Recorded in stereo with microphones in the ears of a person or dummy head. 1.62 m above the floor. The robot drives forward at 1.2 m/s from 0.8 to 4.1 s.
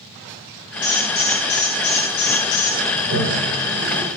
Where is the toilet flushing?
60° right (ahead or behind), 5.5 m; by 4.1 s 75° right (ahead or behind), 5 m.